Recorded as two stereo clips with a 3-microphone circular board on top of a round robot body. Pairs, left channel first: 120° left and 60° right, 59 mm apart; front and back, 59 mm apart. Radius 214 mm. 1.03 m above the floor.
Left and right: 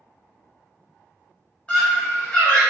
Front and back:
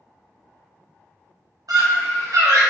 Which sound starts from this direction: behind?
A scream, at 1.7 s.